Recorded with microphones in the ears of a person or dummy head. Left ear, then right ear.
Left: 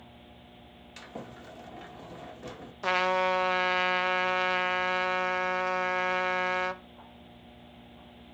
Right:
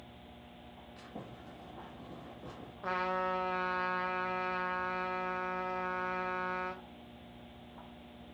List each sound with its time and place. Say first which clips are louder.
1.0 s a sliding door: left 7 dB; 65° left (ahead or behind), 2.0 m
2.8 s a trumpet: left 8 dB; 70° left (ahead or behind), 0.9 m